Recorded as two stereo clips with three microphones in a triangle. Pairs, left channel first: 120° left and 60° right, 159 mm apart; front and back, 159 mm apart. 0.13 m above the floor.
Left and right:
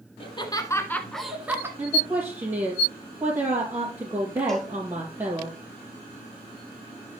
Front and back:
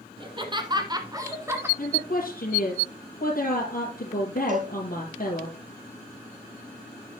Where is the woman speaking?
10° left, 4 m.